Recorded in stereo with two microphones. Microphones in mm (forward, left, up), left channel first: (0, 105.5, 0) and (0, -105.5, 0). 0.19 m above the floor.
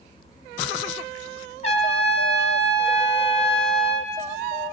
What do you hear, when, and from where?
1.6 s a trumpet: 30° left (ahead or behind), 1.1 m